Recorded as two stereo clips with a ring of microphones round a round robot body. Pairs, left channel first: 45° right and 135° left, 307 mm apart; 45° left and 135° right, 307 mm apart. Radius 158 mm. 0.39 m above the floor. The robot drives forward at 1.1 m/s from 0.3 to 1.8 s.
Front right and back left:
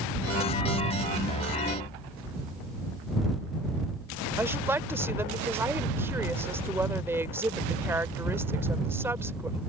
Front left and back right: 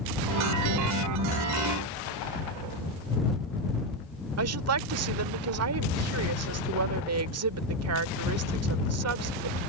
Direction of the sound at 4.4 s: 145° right.